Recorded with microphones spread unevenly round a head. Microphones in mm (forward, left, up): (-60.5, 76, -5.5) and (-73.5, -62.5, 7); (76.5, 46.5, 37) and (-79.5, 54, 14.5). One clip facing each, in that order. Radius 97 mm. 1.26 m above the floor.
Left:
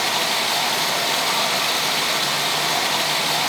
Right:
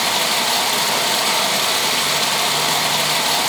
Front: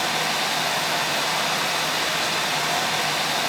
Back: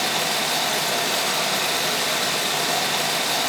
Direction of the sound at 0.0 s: 130° right.